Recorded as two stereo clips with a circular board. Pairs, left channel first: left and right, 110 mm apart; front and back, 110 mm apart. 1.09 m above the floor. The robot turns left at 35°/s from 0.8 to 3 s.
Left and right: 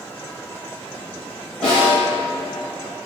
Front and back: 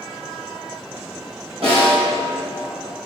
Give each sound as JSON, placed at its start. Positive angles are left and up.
{"t": 1.6, "sound": "a snare drum", "azimuth_deg": 170, "distance_m": 1.8}